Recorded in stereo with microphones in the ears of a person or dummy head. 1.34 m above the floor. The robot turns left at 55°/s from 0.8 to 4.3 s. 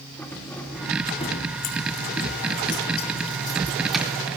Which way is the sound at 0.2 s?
10° left (ahead or behind).